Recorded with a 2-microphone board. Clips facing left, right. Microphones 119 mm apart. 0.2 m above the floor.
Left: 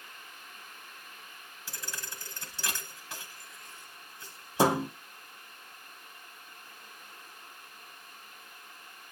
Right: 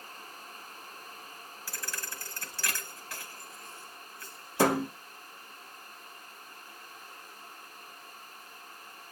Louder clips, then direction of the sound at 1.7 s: Right 1 dB; 25° left (ahead or behind).